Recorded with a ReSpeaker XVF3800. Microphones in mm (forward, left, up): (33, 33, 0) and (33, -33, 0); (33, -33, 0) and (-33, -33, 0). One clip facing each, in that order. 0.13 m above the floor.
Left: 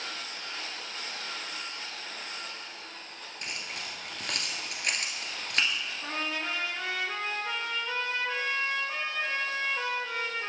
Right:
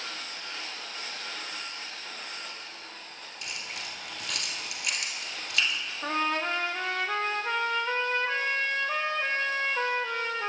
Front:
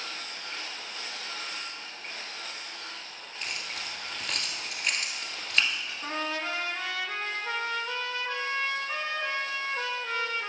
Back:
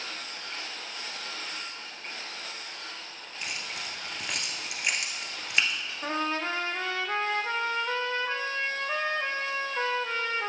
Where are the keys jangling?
110° left, 1.6 m.